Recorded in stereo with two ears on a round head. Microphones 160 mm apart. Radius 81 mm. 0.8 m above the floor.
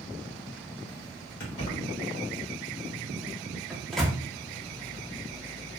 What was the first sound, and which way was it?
Keys jangling, 55° left (ahead or behind).